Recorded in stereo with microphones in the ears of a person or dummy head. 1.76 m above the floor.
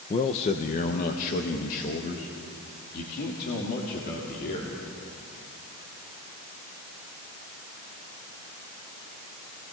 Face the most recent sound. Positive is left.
turn(degrees=50)  # may be behind; listen again after turning